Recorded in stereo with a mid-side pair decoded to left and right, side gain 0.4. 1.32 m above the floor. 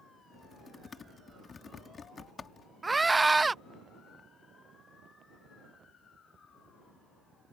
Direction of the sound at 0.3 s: 45° left.